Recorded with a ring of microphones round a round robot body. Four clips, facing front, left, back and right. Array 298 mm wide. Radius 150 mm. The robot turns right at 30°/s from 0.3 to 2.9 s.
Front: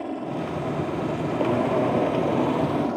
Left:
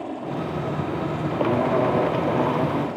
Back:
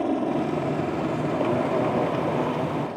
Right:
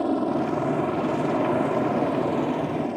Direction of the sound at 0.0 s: 125° right.